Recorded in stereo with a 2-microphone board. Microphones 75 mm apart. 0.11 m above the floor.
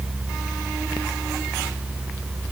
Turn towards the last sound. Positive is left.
No sound to turn to.